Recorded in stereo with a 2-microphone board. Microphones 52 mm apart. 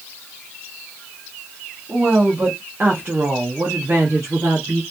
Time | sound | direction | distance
1.9 | a woman speaking | 30° right (ahead or behind) | 1.3 m